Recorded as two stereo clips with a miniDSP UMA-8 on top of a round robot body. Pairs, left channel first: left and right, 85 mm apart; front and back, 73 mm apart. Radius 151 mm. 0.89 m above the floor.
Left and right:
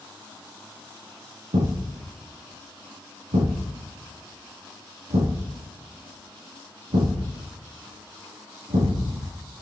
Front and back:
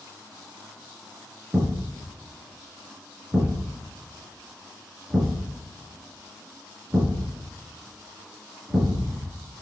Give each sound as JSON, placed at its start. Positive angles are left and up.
{"t": 1.5, "sound": "a thud", "azimuth_deg": -100, "distance_m": 5.0}